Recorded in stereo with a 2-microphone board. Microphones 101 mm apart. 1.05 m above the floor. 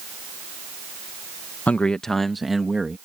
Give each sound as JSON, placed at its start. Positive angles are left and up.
{"t": 1.7, "sound": "a man speaking", "side_deg": 15}